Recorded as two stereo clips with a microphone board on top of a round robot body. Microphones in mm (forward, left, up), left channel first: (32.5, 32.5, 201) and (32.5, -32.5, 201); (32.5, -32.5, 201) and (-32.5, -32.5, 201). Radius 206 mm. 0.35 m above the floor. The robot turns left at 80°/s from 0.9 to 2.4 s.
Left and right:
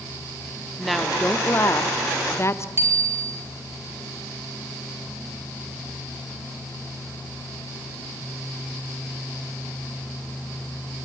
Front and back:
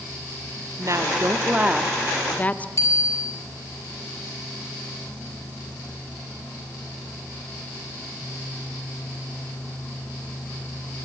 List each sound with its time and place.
0.8 s a woman speaking: straight behind, 1.3 m; by 2.7 s 60° left, 1.3 m
2.8 s a bicycle bell: 40° right, 3.5 m